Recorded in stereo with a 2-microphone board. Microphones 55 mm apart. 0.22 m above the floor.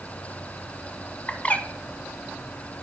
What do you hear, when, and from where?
1.3 s a bird: 25° left (ahead or behind), 0.7 m